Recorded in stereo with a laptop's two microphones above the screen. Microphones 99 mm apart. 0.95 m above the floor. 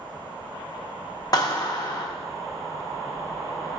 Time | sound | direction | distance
1.3 | a clap | 40° left (ahead or behind) | 0.9 m